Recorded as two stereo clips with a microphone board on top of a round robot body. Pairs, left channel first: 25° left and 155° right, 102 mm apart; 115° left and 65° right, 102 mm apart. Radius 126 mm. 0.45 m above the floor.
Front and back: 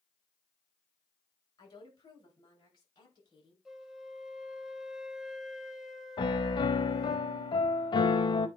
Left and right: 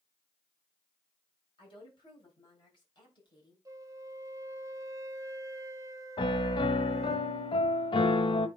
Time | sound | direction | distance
1.6 | a woman speaking | 75° left | 6.5 m
3.6 | a flute | 75° right | 1.2 m
6.2 | a piano | 70° left | 0.6 m